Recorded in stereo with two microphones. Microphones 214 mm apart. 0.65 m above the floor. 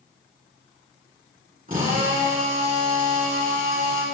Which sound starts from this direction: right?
A drill, at 1.7 s.